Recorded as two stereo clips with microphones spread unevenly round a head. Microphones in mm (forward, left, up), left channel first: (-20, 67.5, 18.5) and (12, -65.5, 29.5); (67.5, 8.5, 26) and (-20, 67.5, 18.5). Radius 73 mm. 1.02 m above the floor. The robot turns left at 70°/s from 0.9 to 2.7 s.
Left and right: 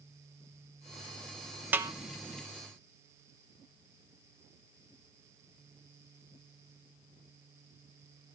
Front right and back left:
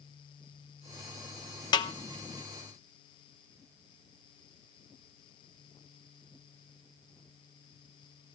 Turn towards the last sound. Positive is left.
turn(degrees=-65)